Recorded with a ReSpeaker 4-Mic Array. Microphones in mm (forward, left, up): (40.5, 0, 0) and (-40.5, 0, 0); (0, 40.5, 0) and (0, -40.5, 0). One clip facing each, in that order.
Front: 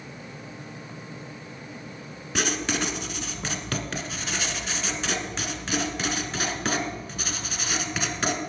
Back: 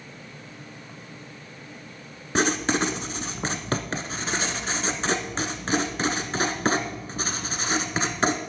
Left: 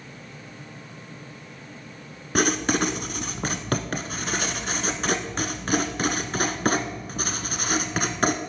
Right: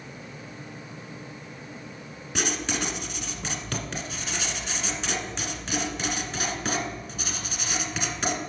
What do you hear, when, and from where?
2.4 s writing: 125° left, 0.8 m